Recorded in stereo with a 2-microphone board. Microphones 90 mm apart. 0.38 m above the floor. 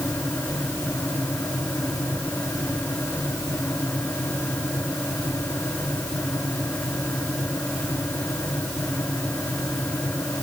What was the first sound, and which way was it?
Only background noise.